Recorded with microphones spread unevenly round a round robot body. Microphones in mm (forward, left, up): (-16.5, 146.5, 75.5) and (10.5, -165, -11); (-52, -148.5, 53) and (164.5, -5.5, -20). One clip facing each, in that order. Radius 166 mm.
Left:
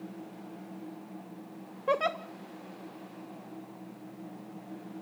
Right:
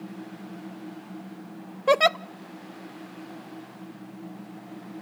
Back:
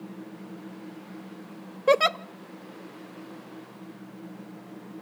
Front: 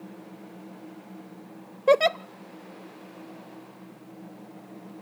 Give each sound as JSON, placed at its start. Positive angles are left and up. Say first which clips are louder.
{"t": 1.9, "sound": "a giggle", "louder": "right 8 dB, front 2 dB", "azimuth_deg": -65, "distance_m": 0.5}